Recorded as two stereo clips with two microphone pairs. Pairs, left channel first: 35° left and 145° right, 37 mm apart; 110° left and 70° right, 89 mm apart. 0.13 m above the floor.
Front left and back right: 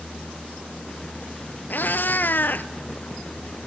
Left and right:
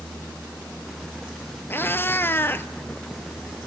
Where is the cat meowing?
45° left, 0.9 m.